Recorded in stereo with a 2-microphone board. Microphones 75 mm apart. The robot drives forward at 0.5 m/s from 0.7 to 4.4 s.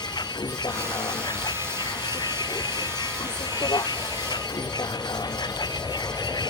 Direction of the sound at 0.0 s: 85° left.